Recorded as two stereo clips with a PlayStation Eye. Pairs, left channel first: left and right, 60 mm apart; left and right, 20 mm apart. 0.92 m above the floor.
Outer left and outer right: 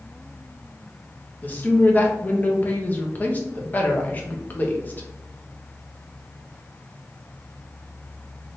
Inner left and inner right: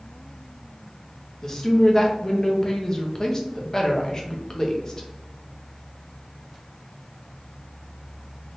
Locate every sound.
1.4 s a woman speaking: 30° left (ahead or behind), 0.7 m